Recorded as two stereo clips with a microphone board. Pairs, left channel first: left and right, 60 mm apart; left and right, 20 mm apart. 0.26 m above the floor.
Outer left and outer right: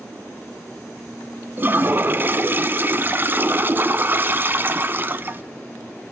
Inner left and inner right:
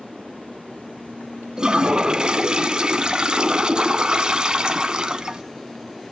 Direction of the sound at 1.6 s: 35° right (ahead or behind).